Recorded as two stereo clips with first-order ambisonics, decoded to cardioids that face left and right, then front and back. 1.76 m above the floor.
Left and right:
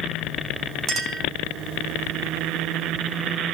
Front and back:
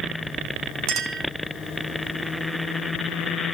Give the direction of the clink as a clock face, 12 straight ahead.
5 o'clock.